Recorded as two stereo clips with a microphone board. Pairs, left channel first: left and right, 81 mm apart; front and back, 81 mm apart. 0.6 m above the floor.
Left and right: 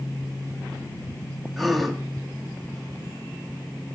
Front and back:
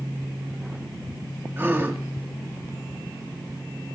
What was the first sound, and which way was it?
A gasp, straight behind.